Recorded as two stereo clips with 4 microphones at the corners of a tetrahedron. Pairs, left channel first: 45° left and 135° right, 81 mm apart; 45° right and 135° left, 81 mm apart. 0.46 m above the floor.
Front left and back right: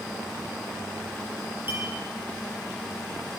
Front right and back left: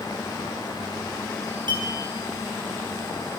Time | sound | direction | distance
1.7 | a clink | 160° left | 5.5 m